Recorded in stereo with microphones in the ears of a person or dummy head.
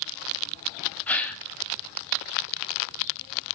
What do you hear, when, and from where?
1.1 s a gasp: 10° left (ahead or behind), 0.9 m